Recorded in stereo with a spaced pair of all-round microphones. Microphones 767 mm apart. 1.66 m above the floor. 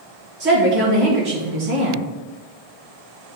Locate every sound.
0.4 s a woman speaking: 75° right (ahead or behind), 2 m